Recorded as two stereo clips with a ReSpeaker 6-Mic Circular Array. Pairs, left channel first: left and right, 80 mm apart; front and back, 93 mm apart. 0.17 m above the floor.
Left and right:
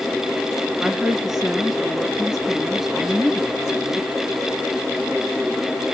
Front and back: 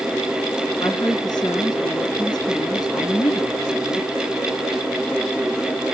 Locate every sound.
0.8 s a woman speaking: 5° right, 2.0 m